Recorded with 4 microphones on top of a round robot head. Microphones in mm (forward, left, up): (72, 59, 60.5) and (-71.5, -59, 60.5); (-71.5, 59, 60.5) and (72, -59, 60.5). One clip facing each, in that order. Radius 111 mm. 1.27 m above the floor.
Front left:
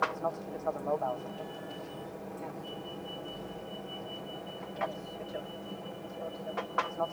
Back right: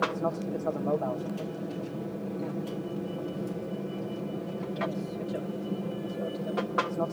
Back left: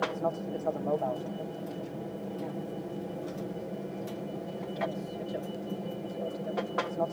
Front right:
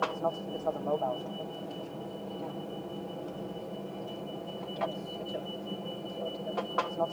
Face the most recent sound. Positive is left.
turn(degrees=-145)